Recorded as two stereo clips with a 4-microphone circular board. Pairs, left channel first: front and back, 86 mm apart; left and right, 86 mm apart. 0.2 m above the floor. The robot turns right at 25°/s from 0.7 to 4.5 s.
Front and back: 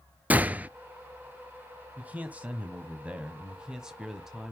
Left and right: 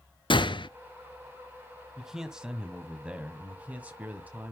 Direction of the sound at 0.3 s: 110° left.